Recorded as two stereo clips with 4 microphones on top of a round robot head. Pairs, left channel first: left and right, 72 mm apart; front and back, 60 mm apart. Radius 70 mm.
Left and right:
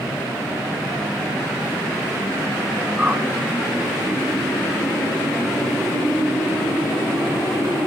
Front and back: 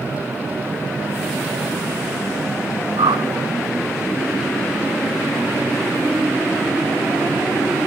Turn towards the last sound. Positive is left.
turn(degrees=-170)